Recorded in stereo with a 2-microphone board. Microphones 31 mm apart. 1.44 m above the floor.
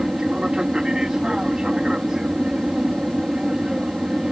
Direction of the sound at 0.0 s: 25° right (ahead or behind).